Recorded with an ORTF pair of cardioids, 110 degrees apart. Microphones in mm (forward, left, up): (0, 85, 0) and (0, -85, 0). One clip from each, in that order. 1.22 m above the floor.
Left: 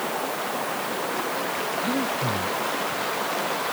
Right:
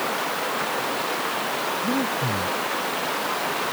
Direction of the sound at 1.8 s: 10° right.